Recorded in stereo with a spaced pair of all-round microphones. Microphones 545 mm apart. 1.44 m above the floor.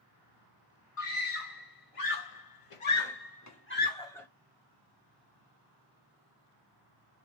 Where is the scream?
65° left (ahead or behind), 1.5 m; by 4.3 s 5° left (ahead or behind), 1.0 m.